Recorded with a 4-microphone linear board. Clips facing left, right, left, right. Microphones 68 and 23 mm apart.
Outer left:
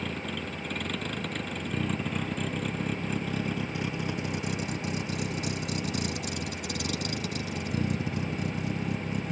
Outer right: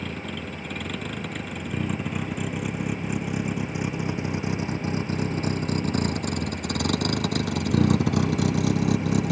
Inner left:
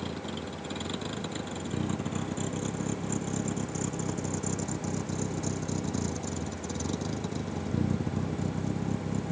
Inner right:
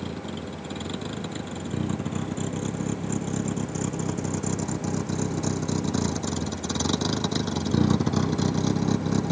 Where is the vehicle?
Centre (ahead or behind); by 9.3 s 85° right.